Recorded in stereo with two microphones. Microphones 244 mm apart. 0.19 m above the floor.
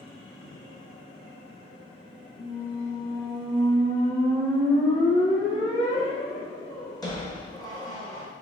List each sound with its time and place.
2.4 s a squeak: 15° left (ahead or behind), 0.8 m